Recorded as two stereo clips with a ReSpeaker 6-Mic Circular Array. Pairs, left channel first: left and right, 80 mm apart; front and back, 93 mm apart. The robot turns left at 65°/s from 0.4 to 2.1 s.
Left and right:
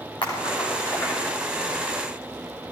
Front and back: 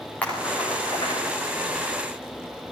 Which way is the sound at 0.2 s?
75° left.